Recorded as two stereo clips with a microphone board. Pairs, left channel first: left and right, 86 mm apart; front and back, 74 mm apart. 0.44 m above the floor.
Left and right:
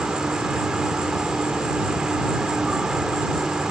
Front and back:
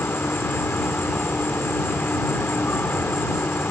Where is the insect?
20° right.